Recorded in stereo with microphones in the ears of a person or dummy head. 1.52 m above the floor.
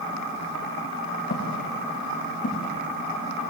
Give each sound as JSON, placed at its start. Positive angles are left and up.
{"t": 1.3, "sound": "footsteps", "side_deg": 40, "distance_m": 4.5}